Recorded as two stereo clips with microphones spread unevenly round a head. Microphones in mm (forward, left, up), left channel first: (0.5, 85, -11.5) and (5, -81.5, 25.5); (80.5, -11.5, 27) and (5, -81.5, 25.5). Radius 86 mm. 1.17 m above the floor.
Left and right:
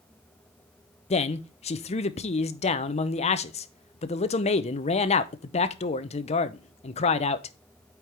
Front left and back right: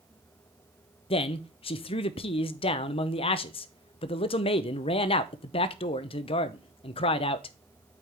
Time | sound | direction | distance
1.1 | a man speaking | 60° left | 0.7 m